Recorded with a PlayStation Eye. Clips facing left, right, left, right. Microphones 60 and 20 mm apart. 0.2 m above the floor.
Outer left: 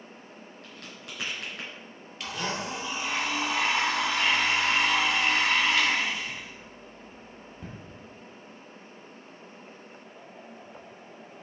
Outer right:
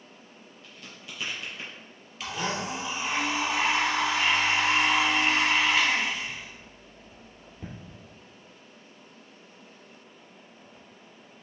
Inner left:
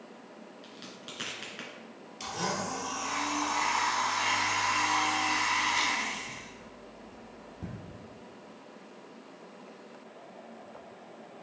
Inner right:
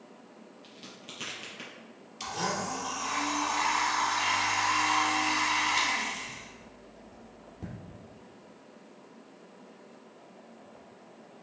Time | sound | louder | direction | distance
0.6 | a crack | even, inner left 1 dB | 60° left (ahead or behind) | 3 m
2.2 | a blender | outer right 1 dB, inner right 1 dB | 5° right (ahead or behind) | 2.5 m